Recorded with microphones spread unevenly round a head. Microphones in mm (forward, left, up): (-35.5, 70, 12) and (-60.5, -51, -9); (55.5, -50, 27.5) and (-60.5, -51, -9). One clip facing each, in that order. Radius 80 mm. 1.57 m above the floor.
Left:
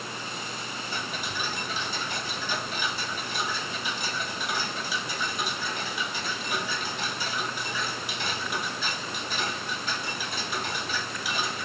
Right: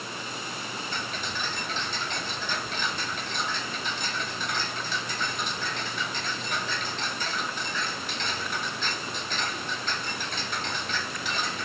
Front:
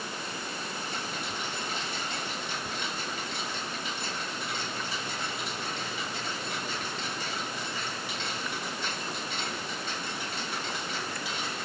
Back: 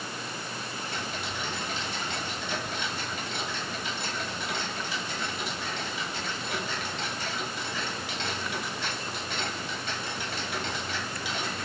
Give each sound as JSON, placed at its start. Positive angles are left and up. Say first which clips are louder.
{"t": 0.9, "sound": "ticking", "louder": "left 2 dB, back 1 dB", "azimuth_deg": 145, "distance_m": 1.8}